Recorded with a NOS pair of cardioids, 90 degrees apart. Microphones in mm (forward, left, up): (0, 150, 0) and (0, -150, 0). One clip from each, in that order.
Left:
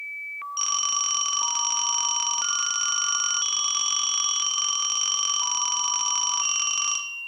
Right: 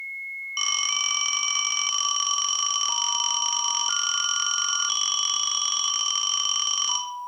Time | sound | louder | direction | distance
0.6 | a phone ringing | right 1 dB | 5° right | 1.8 m